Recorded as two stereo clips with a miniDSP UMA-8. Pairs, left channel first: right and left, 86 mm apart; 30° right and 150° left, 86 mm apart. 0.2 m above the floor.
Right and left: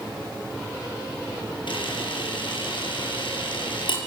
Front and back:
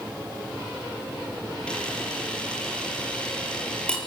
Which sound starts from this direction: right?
A camera shutter, at 1.7 s.